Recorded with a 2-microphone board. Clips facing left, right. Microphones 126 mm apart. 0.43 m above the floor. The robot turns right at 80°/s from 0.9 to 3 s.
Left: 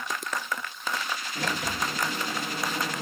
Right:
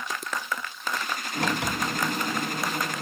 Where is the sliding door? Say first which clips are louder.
Right 4 dB; 115° right, 3 m; by 3.0 s 15° left, 3 m.